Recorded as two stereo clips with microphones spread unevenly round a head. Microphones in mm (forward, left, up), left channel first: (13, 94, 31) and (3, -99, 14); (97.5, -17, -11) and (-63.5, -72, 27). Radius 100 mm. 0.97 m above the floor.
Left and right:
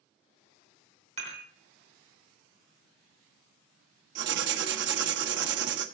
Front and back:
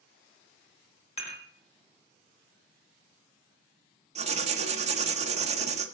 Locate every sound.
1.2 s dishes clattering: 35° right, 2.5 m
4.2 s writing: 105° right, 1.1 m